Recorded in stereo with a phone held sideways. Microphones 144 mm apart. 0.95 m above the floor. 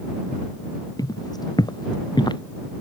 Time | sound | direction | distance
1.0 | footsteps | 25° left (ahead or behind) | ?